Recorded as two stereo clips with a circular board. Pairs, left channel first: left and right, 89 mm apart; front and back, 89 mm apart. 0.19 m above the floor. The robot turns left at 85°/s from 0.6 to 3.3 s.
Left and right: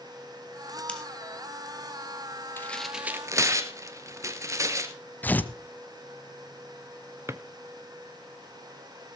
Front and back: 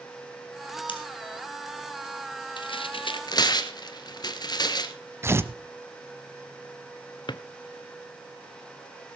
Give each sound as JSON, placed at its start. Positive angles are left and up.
{"t": 0.9, "sound": "scissors", "azimuth_deg": 15, "distance_m": 3.5}
{"t": 2.6, "sound": "tearing paper", "azimuth_deg": 25, "distance_m": 1.6}
{"t": 5.2, "sound": "tearing paper", "azimuth_deg": 145, "distance_m": 1.0}
{"t": 7.3, "sound": "a drawer", "azimuth_deg": -30, "distance_m": 0.8}